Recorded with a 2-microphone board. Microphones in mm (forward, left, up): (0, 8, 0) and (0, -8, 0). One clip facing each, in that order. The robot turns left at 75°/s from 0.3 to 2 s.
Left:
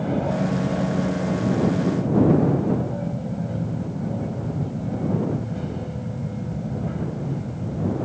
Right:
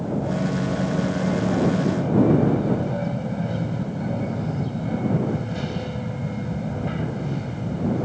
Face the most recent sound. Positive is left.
turn(degrees=-70)